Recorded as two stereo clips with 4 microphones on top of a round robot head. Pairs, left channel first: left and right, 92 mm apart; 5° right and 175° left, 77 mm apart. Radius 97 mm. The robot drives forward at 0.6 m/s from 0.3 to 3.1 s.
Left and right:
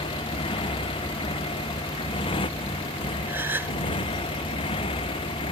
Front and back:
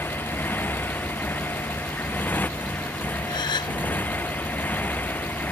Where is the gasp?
20° right.